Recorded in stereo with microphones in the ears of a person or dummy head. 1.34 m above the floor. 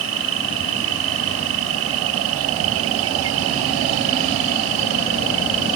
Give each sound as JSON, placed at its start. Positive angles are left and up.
{"t": 0.0, "sound": "an insect", "side_deg": -85}